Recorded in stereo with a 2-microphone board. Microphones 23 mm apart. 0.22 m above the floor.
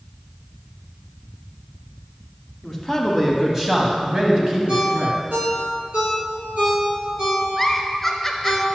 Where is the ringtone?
70° right (ahead or behind), 2 m.